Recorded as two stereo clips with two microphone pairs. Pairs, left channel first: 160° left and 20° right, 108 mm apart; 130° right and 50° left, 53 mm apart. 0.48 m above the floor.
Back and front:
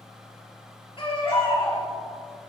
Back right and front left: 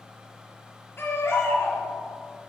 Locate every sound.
1.0 s a baby crying: 165° right, 6 m